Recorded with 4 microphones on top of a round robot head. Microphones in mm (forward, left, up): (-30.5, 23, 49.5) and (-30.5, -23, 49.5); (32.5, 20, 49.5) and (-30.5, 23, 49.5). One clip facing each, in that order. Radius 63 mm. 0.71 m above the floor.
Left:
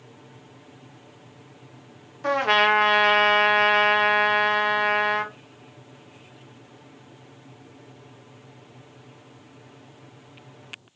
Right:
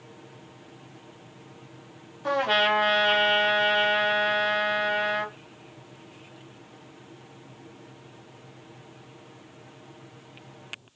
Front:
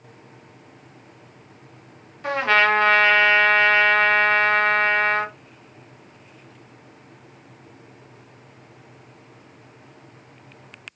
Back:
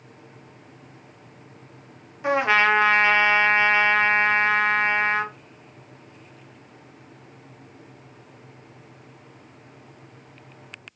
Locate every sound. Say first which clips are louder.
2.2 s a trumpet: left 3 dB, even; 100° left, 1.3 m